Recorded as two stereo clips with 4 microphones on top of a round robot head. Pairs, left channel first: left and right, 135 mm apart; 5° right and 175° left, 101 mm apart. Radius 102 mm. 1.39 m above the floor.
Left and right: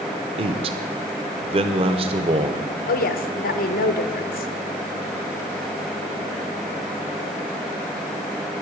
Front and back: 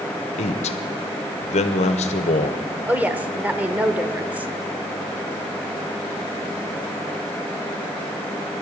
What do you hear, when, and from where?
0.4 s a man speaking: 35° right, 0.7 m
2.9 s a woman speaking: 100° left, 1.0 m